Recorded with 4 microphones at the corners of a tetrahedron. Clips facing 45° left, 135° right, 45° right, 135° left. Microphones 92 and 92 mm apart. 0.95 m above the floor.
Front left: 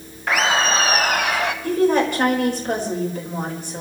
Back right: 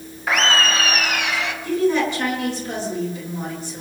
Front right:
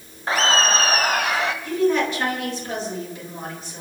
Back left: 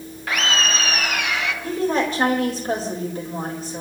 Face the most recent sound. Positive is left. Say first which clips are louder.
# front left 1 dB, front right 1 dB
turn(degrees=85)